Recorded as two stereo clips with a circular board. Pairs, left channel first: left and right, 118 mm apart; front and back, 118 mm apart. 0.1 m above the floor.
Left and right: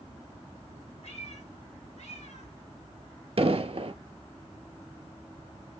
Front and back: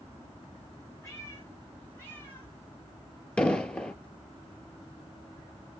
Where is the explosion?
80° right, 0.7 m.